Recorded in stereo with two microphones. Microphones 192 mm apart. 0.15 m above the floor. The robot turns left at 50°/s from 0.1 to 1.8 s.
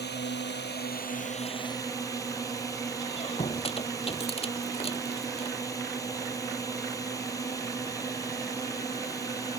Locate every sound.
0.0 s a drone: 105° left; by 9.6 s 20° left
3.0 s a squeak: 35° left (ahead or behind)